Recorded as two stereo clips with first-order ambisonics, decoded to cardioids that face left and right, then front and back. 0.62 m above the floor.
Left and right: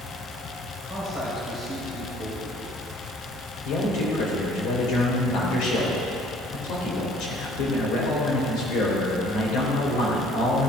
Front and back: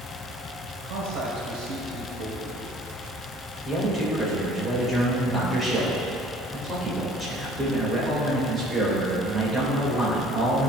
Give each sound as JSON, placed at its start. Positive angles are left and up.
{"t": 0.8, "sound": "a man speaking", "azimuth_deg": 160, "distance_m": 3.0}
{"t": 3.6, "sound": "a man speaking", "azimuth_deg": 105, "distance_m": 3.0}